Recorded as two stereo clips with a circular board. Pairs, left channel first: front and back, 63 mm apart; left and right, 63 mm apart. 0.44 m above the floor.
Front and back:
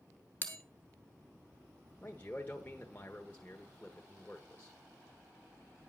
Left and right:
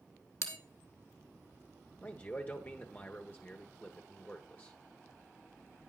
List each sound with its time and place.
0.4 s a bell: 60° left, 1.5 m
2.0 s a man speaking: 50° left, 1.0 m